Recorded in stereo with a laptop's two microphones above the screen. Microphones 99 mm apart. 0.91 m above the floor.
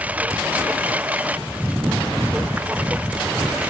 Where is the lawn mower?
15° right (ahead or behind).